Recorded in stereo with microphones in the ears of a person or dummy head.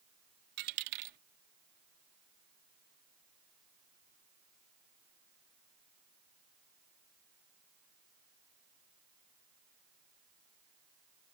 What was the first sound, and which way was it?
A dropped coin, 45° right (ahead or behind).